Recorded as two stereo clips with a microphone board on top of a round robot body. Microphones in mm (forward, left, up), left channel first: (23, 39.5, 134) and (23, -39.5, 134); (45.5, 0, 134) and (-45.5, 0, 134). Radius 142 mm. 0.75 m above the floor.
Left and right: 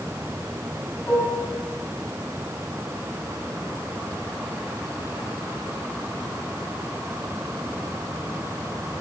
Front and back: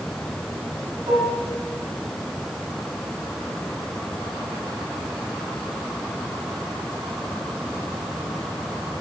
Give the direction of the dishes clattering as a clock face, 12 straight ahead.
7 o'clock.